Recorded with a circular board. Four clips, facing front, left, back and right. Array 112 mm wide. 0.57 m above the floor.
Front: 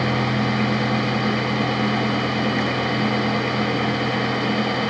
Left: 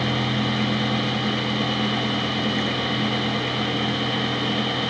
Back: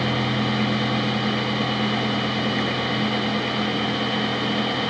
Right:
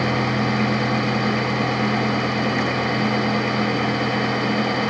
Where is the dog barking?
No dog barking in this recording.